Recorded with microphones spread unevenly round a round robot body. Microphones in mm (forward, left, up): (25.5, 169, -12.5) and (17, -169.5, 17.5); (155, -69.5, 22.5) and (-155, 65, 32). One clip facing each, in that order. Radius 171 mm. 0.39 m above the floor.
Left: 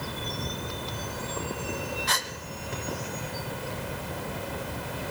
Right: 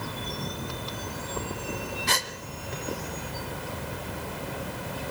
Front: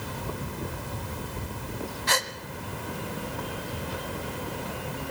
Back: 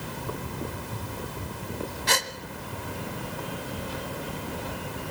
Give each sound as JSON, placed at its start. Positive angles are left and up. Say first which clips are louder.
{"t": 2.1, "sound": "a gasp", "louder": "right 3 dB, even", "azimuth_deg": -150, "distance_m": 1.5}